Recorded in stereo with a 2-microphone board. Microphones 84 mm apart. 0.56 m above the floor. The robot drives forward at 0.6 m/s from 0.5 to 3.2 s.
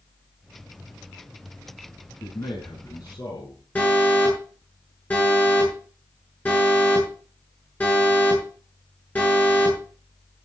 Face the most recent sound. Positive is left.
turn(degrees=20)  # may be behind; listen again after turning